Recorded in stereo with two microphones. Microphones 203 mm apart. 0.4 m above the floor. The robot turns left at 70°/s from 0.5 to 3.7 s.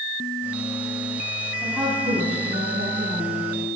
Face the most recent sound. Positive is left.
turn(degrees=-140)